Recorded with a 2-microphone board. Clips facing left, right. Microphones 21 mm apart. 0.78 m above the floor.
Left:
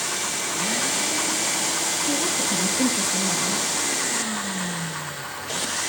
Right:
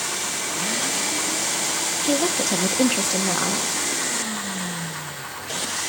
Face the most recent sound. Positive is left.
turn(degrees=-35)  # may be behind; listen again after turning